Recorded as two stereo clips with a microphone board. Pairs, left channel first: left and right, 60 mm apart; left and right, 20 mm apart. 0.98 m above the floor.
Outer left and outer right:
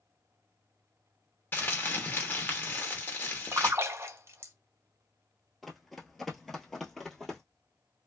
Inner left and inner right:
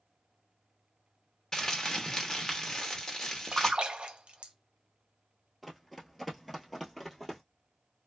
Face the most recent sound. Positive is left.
turn(degrees=5)  # may be behind; listen again after turning